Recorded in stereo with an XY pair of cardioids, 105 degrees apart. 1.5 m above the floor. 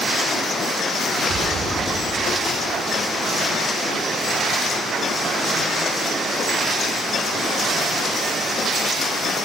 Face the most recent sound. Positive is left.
turn(degrees=-55)